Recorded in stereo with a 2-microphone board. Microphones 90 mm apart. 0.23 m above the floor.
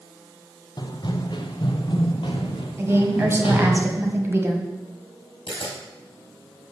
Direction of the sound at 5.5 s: 75° left (ahead or behind).